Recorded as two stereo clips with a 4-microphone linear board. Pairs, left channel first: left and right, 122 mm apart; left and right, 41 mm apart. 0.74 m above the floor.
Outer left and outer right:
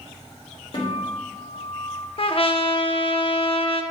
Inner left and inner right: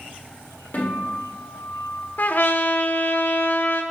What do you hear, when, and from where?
0.7 s a guitar: 50° left (ahead or behind), 1.9 m
2.2 s a trumpet: 50° left (ahead or behind), 0.5 m